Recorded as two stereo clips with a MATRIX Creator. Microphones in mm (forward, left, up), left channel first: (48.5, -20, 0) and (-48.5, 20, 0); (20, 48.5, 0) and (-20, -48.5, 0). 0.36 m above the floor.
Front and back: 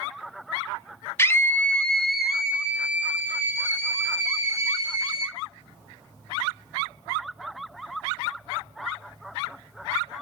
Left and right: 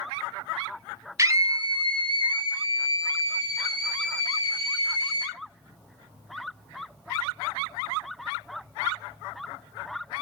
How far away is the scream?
About 1.2 m.